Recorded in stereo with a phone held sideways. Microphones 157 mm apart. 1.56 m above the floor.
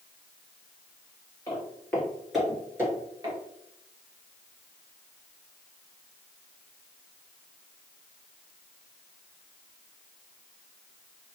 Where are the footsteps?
20° left (ahead or behind), 2.0 m; by 3.4 s 30° right (ahead or behind), 1.7 m.